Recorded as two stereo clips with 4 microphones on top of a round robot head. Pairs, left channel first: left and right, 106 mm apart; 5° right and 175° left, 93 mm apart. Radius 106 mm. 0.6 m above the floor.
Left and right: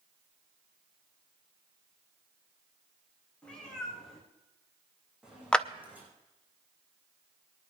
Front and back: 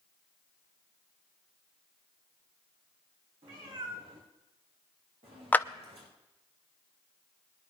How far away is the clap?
About 0.7 m.